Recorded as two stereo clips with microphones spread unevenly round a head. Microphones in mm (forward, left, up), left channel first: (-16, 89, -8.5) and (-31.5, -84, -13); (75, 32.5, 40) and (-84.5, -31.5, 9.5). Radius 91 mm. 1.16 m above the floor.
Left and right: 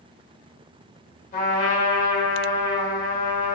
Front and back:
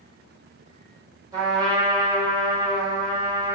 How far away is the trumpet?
About 1.3 m.